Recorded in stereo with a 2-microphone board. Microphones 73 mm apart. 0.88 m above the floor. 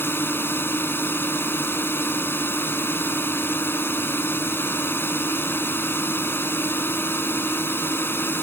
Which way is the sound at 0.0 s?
30° left (ahead or behind).